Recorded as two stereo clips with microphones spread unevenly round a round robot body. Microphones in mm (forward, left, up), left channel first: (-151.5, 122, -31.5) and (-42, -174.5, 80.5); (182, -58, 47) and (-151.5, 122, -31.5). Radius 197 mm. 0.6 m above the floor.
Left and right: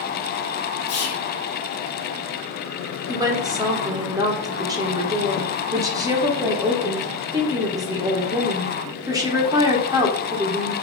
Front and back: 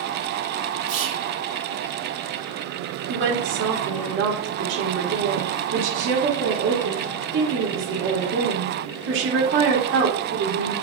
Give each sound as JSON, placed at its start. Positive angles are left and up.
{"t": 0.9, "sound": "whispering", "azimuth_deg": 125, "distance_m": 0.9}
{"t": 3.1, "sound": "a woman speaking", "azimuth_deg": -160, "distance_m": 1.1}